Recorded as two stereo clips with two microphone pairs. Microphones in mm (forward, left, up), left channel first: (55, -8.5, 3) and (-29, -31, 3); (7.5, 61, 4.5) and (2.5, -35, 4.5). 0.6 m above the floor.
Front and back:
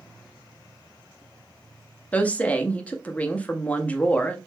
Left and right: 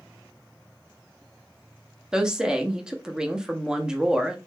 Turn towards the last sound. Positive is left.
turn(degrees=-20)